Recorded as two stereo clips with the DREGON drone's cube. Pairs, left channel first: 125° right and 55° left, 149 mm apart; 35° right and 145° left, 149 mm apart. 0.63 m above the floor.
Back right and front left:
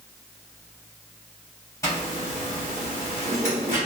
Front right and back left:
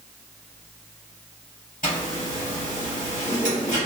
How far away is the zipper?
About 1.9 m.